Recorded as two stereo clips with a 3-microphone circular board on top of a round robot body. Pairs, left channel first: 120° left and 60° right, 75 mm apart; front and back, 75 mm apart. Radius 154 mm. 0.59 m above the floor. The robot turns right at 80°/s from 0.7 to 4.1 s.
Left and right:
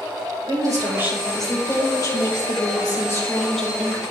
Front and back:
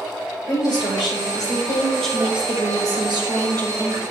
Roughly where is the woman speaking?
Ahead.